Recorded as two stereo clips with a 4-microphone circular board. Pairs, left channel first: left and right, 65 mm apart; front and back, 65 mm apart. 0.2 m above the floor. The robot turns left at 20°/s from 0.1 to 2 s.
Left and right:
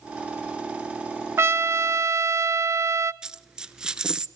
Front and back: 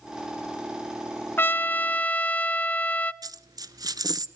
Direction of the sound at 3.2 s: 170° right.